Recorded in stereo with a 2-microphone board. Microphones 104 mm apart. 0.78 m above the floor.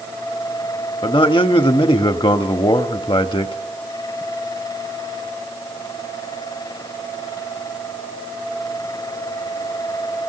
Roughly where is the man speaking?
Left.